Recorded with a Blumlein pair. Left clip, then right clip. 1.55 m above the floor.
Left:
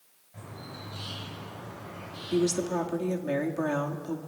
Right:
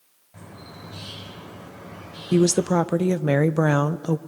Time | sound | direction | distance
0.3 | a bird | 30° right | 6 m
2.3 | a woman speaking | 30° right | 0.5 m